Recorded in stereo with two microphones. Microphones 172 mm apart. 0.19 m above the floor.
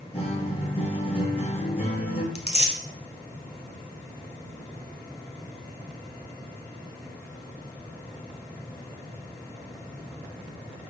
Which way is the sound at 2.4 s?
40° left (ahead or behind).